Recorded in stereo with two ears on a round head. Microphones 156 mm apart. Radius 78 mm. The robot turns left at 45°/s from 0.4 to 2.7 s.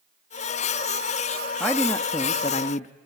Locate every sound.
1.6 s a man speaking: straight behind, 0.8 m; by 2.9 s 130° left, 0.8 m